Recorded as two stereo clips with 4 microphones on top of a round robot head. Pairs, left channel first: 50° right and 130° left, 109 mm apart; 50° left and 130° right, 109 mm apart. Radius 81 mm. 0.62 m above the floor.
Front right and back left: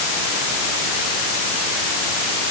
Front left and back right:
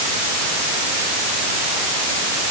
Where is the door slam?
I don't hear a door slam.